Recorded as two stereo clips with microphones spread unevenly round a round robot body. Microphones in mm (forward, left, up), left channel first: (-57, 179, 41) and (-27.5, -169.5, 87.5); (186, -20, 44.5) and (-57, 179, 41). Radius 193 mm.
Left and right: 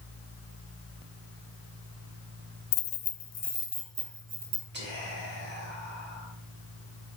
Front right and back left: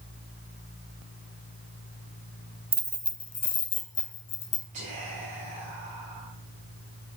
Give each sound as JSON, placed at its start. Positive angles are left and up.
{"t": 2.7, "sound": "keys jangling", "azimuth_deg": 70, "distance_m": 0.8}
{"t": 4.7, "sound": "whispering", "azimuth_deg": -150, "distance_m": 2.5}